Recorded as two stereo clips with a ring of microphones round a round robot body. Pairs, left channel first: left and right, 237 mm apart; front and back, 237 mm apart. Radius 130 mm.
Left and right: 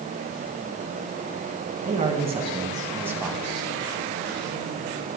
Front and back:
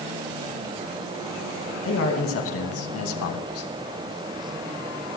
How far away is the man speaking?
About 3 m.